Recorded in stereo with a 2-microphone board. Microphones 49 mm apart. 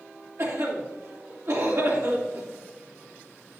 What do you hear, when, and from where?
0.4 s a cough: 70° right (ahead or behind), 3 m